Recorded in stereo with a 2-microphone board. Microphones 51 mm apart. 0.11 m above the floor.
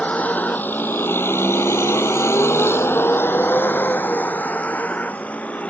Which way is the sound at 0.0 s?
30° left (ahead or behind).